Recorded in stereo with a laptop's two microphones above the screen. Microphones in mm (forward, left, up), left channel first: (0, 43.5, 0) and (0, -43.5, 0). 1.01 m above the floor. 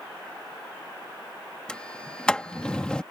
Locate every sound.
1.7 s a sliding door: 10° left (ahead or behind)